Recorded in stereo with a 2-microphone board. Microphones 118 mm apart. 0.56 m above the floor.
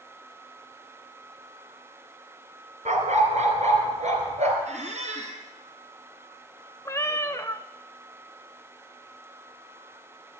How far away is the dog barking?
About 2.5 m.